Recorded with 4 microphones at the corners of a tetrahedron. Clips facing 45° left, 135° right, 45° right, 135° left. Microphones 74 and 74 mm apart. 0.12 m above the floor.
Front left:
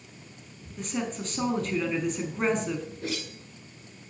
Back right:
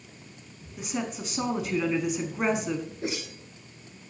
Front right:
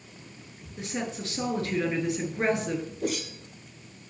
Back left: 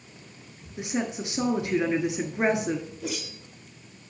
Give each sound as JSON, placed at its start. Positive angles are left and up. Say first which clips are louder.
{"t": 0.8, "sound": "a woman speaking", "louder": "even, back left 4 dB", "azimuth_deg": 160, "distance_m": 1.1}
{"t": 3.0, "sound": "a whoosh", "louder": "back right 1 dB, front right 4 dB", "azimuth_deg": -70, "distance_m": 1.1}